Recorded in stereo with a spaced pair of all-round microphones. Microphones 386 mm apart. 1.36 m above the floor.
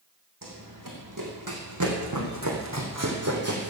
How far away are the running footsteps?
About 4.5 m.